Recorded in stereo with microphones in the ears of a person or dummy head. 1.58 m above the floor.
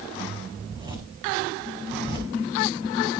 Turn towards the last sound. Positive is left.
turn(degrees=-25)  # may be behind; listen again after turning